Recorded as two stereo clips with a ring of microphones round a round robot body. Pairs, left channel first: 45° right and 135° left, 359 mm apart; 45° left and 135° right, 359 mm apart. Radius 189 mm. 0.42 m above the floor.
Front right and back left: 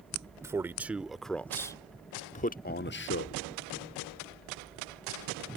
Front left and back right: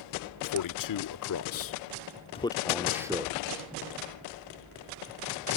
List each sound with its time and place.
0.4 s a man speaking: 55° left; by 3.4 s 75° right